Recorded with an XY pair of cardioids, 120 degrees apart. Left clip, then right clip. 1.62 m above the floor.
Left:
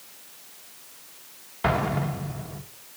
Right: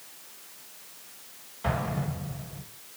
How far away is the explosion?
About 1.4 m.